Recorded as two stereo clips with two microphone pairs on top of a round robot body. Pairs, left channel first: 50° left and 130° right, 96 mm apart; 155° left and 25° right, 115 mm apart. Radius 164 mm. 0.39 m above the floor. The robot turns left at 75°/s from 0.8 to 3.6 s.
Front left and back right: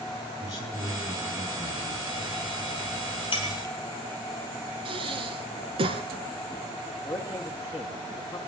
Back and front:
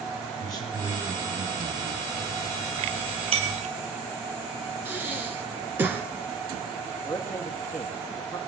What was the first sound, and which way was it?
A man speaking, 95° left.